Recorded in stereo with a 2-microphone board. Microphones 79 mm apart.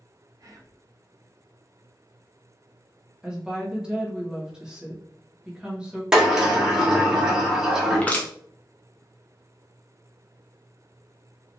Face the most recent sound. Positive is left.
turn(degrees=20)  # may be behind; listen again after turning